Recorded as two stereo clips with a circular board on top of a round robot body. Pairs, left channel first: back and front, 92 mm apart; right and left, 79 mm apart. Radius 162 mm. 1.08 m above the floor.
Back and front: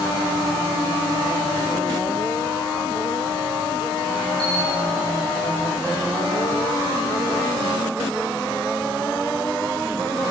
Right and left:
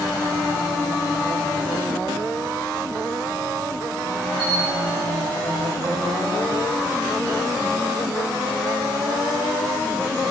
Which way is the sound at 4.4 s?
95° left.